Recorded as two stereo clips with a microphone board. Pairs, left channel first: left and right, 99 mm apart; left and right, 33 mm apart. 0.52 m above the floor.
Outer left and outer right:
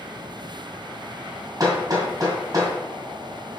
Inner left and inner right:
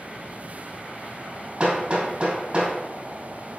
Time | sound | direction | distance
1.6 | hammering | 35° right (ahead or behind) | 2 m